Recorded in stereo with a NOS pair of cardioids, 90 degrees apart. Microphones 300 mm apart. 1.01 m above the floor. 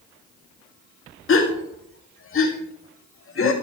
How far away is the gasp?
About 1.8 m.